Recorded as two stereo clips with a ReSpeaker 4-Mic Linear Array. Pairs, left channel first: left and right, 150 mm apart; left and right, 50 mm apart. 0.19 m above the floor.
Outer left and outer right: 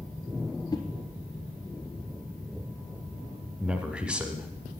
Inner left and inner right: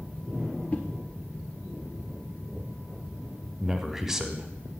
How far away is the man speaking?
About 1.3 m.